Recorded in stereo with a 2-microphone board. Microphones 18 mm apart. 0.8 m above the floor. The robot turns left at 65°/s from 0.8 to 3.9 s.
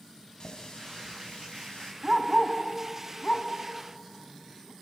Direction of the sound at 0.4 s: 135° left.